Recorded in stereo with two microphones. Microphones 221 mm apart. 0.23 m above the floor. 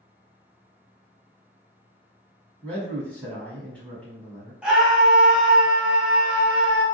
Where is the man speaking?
5° left (ahead or behind), 1.6 m.